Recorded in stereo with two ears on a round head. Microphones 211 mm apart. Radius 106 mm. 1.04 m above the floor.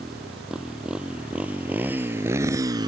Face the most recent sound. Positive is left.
turn(degrees=-20)  # may be behind; listen again after turning